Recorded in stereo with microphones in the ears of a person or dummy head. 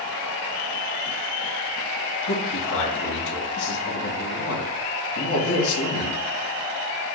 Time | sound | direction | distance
2.3 | a man speaking | 70° left (ahead or behind) | 1.8 m